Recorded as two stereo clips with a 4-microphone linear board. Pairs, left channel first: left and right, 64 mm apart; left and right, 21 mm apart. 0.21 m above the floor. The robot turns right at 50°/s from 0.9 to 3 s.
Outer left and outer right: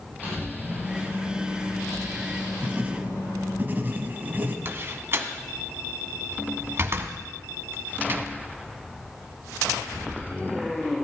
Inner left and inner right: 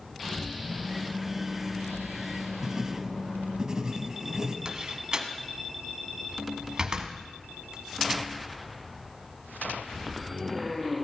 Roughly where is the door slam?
Right.